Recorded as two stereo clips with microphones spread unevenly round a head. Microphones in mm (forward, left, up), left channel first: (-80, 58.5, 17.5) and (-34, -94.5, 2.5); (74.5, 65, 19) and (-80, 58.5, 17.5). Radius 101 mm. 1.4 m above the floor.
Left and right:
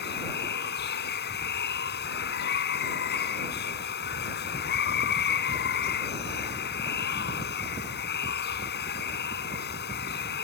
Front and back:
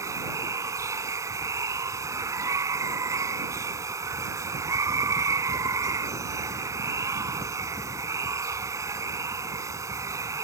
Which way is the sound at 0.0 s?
110° left.